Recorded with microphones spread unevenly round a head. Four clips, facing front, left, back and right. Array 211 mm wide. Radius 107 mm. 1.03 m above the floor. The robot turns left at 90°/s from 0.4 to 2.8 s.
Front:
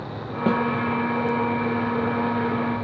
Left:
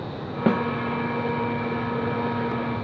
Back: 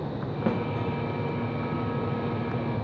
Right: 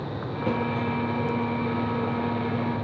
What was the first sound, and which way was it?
A snare drum, 55° left.